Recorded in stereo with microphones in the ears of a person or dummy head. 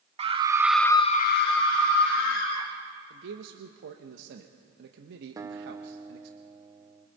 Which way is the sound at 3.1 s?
65° right (ahead or behind).